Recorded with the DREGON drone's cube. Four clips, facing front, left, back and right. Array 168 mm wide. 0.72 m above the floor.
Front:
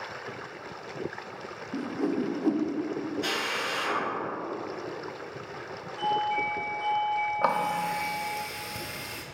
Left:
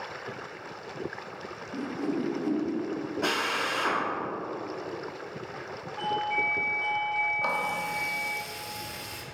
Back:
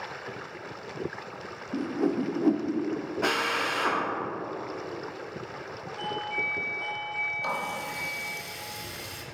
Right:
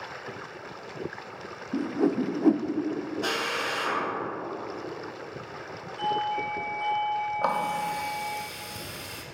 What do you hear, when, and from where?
1.7 s a whoosh: 105° right, 0.5 m
3.2 s a drill: 155° left, 1.9 m
6.0 s a doorbell: 90° left, 3 m
7.4 s a running tap: 25° right, 0.8 m